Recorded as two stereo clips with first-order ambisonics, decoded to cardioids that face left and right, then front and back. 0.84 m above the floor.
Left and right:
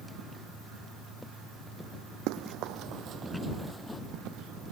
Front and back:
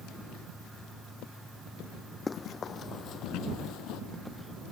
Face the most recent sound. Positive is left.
turn(degrees=10)